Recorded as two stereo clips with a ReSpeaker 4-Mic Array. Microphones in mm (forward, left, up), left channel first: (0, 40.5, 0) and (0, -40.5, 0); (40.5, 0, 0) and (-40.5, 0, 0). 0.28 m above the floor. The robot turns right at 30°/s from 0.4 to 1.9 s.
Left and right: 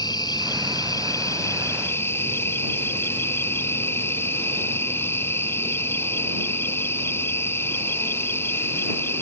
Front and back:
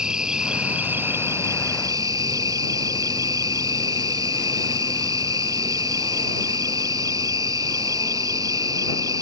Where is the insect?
100° left; by 9.2 s 145° left.